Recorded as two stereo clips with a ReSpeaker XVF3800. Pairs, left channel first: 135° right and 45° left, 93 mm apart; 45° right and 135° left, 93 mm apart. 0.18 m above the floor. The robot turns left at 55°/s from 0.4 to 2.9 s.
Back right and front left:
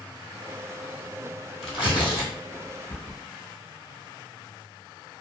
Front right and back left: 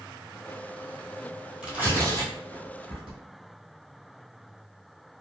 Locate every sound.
1.6 s tearing paper: 145° right, 1.7 m; by 3.2 s 145° left, 1.7 m